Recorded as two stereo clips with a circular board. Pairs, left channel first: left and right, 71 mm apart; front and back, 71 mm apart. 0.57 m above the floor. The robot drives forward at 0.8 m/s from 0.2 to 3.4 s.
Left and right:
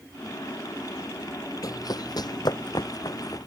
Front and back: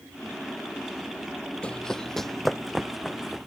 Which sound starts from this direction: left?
Running footsteps, at 1.6 s.